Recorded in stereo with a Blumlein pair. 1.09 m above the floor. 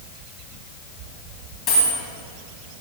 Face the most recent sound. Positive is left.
turn(degrees=25)